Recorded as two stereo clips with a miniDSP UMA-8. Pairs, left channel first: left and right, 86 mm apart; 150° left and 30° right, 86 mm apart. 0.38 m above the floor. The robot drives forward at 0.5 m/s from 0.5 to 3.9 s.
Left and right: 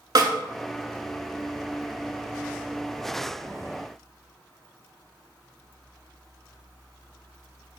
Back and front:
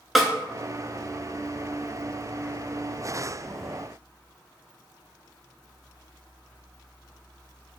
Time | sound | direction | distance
0.1 | a snare drum | 120° right | 0.6 m